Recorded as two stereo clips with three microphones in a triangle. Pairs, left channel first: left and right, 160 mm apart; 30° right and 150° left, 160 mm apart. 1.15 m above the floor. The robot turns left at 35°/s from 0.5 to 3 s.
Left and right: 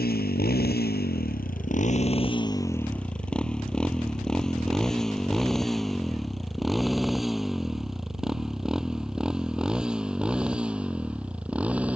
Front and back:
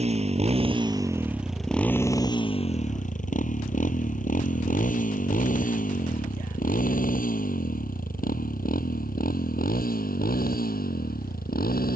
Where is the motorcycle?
100° left; by 12.0 s 10° right.